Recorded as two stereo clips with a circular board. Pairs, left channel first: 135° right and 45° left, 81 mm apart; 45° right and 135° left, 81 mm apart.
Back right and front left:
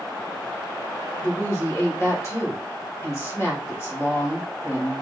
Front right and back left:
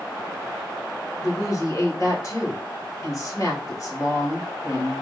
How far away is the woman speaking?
About 2 m.